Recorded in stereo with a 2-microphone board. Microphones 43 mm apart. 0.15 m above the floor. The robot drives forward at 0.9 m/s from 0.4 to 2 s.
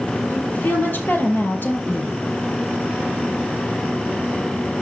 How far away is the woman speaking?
About 3.5 m.